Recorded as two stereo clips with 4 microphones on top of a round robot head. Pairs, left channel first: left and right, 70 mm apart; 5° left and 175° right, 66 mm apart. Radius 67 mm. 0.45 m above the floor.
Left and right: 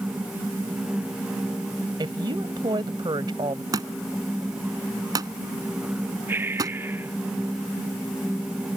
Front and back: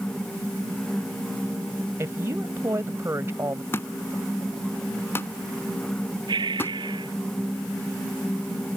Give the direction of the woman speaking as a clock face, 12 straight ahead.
4 o'clock.